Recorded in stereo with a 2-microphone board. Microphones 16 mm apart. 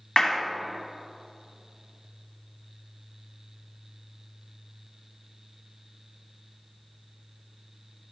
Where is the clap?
45° left (ahead or behind), 1.6 m.